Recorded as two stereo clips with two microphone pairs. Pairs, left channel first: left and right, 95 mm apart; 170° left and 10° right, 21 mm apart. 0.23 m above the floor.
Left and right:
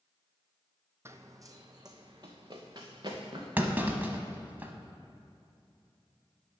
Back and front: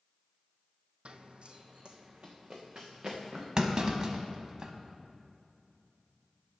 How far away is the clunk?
About 0.9 m.